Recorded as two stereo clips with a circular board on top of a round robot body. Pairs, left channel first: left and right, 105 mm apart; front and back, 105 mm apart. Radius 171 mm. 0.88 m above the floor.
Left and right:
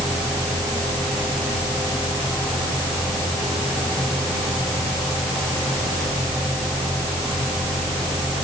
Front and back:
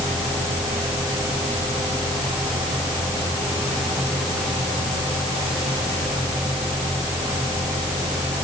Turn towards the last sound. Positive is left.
No sound to turn to.